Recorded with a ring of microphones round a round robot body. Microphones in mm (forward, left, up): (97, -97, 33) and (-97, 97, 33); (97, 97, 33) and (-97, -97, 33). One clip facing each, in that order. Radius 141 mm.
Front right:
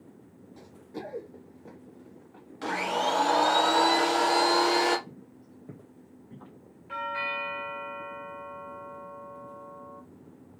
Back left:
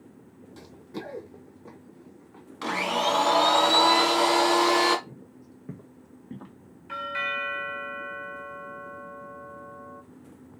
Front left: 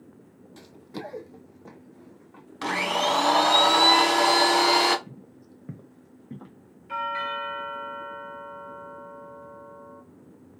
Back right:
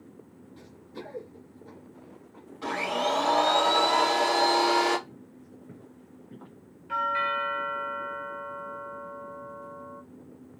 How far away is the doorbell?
About 2.0 m.